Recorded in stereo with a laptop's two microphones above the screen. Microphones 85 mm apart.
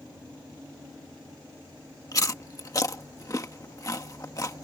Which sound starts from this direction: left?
Chewing, at 2.1 s.